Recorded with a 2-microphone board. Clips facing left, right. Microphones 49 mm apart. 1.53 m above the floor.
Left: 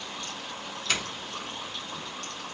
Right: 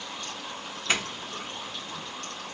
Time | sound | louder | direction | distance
0.9 | a doorbell | right 3 dB | 25° right (ahead or behind) | 0.7 m